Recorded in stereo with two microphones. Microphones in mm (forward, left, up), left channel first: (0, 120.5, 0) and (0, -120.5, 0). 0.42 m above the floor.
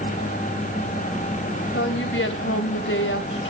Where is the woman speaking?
50° left (ahead or behind), 2.5 m.